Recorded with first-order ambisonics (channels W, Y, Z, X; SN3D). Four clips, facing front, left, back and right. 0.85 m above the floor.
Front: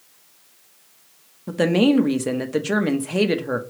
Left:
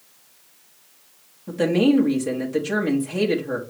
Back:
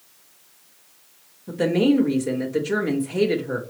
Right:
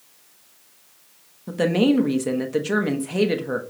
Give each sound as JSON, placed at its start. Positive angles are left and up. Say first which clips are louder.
{"t": 1.5, "sound": "a woman speaking", "louder": "left 1 dB, front 2 dB", "azimuth_deg": -15, "distance_m": 0.9}